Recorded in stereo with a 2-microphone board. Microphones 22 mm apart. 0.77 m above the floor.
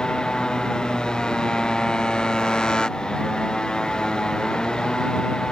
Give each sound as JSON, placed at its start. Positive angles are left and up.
{"t": 0.0, "sound": "a motorcycle", "side_deg": 40}